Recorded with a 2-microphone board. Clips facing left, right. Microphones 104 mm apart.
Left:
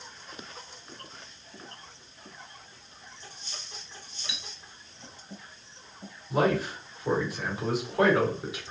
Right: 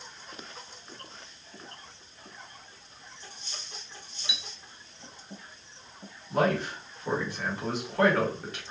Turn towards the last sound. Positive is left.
turn(degrees=10)  # may be behind; listen again after turning